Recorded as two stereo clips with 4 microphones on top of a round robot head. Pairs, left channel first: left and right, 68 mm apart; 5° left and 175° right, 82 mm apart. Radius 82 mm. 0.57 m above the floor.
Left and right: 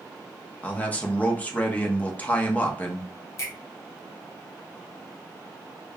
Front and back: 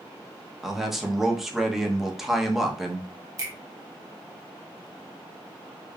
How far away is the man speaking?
About 0.9 m.